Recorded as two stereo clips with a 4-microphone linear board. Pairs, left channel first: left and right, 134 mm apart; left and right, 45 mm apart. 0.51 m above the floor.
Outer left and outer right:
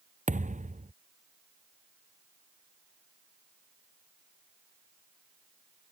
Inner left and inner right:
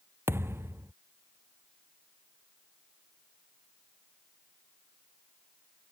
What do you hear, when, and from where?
0.3 s a thud: 70° right (ahead or behind)